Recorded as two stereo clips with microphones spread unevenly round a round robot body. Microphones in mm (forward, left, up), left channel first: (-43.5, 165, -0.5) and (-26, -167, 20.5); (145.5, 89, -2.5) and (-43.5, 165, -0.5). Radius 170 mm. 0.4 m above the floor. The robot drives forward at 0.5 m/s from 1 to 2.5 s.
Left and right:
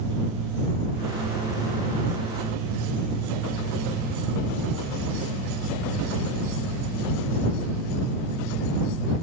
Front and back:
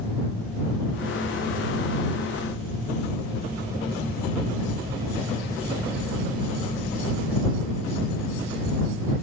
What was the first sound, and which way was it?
Only background noise.